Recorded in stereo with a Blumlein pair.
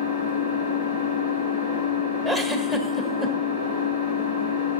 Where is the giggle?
15° left, 1.3 m.